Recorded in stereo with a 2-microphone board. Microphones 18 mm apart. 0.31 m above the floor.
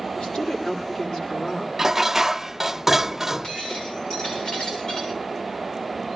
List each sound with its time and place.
0.1 s a woman speaking: 80° left, 9.5 m
1.8 s dishes clattering: 20° right (ahead or behind), 0.5 m
3.4 s breaking glass: 70° left (ahead or behind), 8 m